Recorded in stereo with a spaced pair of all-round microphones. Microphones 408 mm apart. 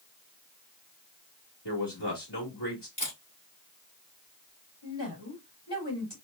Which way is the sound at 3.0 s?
80° left.